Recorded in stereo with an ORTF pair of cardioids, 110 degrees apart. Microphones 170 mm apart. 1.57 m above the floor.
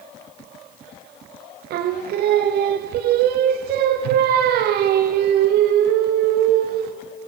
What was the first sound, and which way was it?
Singing, 70° right.